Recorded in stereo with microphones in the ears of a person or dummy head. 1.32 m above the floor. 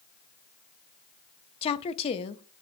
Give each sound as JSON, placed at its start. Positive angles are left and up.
{"t": 1.6, "sound": "a woman speaking", "side_deg": 30, "distance_m": 0.6}